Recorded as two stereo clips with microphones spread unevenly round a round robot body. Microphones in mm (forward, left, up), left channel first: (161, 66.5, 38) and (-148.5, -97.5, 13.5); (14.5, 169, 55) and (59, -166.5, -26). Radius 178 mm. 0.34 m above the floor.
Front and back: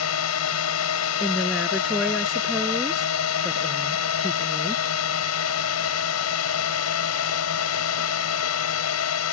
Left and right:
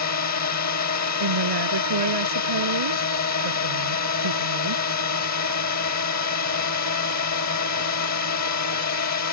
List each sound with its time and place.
0.0 s a drone: 60° left
1.2 s a woman speaking: 65° right